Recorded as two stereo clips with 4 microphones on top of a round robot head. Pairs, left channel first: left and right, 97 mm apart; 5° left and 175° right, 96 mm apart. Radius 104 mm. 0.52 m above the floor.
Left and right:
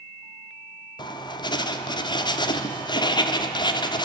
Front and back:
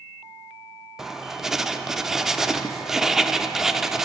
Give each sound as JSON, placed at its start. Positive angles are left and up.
{"t": 1.0, "sound": "writing", "azimuth_deg": 105, "distance_m": 1.6}